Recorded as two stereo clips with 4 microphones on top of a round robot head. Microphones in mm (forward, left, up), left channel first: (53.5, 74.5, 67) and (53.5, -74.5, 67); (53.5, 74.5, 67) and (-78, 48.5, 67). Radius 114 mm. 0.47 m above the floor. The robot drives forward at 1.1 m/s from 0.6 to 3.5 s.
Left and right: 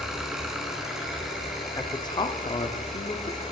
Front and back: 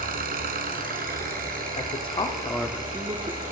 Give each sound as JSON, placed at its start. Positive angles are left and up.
{"t": 0.0, "sound": "an engine running", "azimuth_deg": -175, "distance_m": 1.9}
{"t": 1.8, "sound": "a man speaking", "azimuth_deg": 30, "distance_m": 1.4}